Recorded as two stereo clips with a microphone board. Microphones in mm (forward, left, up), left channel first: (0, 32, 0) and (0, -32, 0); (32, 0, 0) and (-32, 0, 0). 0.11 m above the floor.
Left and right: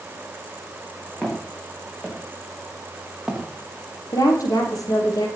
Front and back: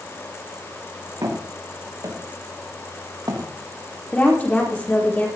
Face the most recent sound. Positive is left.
turn(degrees=65)